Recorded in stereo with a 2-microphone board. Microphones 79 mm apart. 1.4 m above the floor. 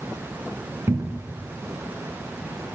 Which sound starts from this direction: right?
A cupboard door, at 0.9 s.